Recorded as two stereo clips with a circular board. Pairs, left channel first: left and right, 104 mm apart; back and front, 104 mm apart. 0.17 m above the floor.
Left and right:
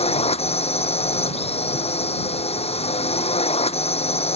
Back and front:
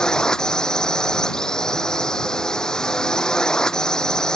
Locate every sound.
0.0 s a drone: 95° left